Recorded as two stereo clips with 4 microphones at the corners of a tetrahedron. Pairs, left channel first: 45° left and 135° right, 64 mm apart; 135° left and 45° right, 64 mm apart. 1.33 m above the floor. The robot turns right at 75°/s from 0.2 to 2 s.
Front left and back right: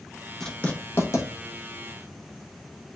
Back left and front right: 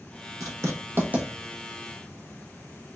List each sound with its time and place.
0.4 s writing: 40° right, 0.9 m; by 1.3 s 25° left, 0.9 m